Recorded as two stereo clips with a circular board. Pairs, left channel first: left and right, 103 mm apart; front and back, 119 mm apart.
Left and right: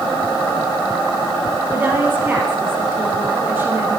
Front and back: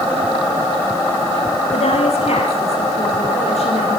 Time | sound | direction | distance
1.7 | a woman speaking | 20° right | 8.5 m